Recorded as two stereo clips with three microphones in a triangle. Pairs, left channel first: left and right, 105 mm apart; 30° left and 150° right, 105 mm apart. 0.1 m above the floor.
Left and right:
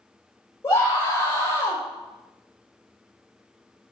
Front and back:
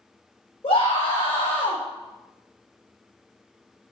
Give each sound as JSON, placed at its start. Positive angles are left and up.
{"t": 0.6, "sound": "a scream", "azimuth_deg": 30, "distance_m": 4.5}